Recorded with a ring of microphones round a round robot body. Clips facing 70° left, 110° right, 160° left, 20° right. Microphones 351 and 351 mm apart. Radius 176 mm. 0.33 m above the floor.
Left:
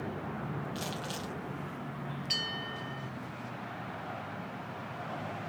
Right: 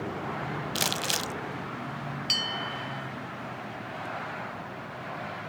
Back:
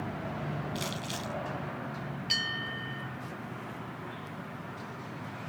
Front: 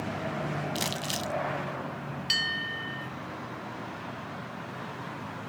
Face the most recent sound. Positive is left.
turn(degrees=-90)